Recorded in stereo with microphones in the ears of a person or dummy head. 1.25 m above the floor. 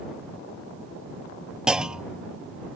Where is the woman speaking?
I don't hear a woman speaking.